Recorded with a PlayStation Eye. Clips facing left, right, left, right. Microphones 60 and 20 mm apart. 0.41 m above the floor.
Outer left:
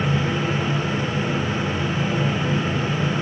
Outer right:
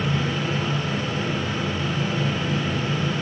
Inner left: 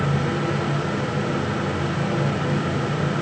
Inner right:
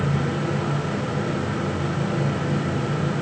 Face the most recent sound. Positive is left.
No sound to turn to.